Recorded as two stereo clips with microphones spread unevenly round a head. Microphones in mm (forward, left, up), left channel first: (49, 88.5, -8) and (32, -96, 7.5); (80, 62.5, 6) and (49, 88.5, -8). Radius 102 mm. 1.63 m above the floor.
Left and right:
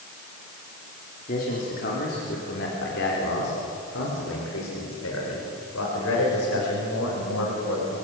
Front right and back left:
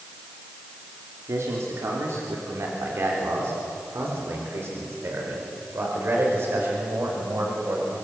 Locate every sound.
1.3 s a man speaking: 140° left, 3.5 m; by 8.0 s 105° left, 7 m